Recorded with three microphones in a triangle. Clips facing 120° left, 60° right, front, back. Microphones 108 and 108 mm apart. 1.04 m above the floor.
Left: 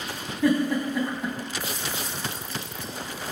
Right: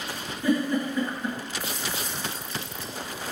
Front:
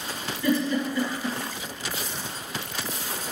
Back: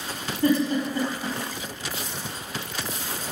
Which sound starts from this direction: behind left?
A giggle, at 0.4 s.